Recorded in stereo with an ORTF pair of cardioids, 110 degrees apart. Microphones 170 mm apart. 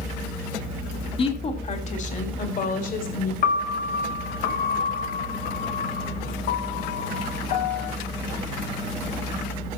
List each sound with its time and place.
1.2 s a woman speaking: 35° left, 2.5 m; by 3.3 s 60° left, 4.5 m
3.4 s a piano: 60° left, 2.5 m